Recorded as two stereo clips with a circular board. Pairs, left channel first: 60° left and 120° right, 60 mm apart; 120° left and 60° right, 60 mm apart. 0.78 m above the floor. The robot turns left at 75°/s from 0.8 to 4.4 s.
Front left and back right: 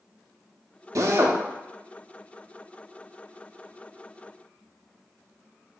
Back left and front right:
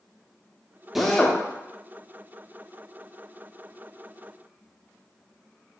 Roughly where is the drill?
Behind right.